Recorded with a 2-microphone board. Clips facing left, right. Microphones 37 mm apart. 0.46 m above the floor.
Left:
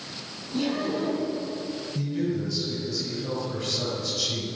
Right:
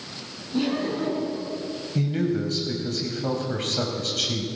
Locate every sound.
0.5 s laughter: 15° right (ahead or behind), 6 m
1.9 s a man speaking: 55° right (ahead or behind), 3 m